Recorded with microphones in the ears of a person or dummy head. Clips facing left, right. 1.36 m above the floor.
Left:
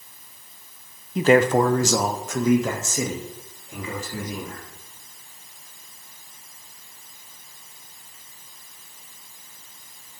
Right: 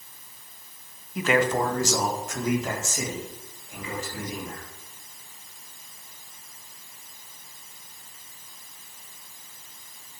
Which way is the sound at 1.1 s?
20° left (ahead or behind).